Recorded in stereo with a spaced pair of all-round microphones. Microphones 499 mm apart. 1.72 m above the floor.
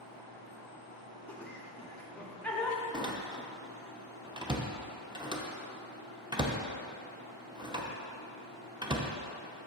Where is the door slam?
10° right (ahead or behind), 0.8 m.